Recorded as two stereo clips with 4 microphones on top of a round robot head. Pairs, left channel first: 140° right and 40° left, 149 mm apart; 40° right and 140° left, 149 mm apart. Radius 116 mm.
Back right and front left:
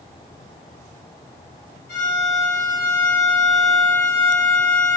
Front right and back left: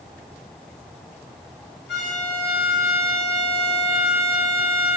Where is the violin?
130° right, 1.6 m.